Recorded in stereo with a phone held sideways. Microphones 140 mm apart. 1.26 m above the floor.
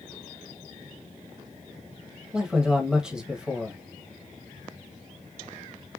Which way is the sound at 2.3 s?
5° right (ahead or behind).